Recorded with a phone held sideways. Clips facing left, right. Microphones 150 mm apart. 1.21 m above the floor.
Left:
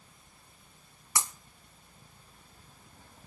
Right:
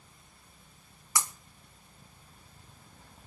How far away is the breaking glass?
About 1.0 m.